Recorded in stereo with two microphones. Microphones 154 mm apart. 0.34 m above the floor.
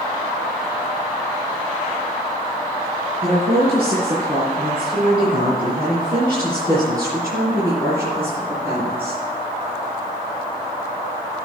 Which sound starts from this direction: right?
A woman speaking, at 3.2 s.